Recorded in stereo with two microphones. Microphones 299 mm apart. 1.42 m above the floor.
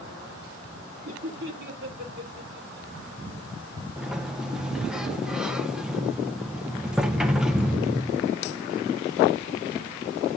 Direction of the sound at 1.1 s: 50° right (ahead or behind).